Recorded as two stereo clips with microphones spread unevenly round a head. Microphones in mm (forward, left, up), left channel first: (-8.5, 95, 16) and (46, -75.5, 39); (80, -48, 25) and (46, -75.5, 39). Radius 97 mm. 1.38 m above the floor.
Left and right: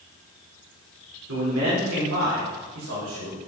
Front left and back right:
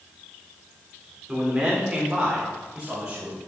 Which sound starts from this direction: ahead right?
A man speaking, at 1.3 s.